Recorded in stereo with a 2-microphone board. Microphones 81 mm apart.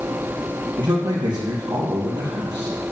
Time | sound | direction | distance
0.8 | a man speaking | 55° right (ahead or behind) | 4.5 m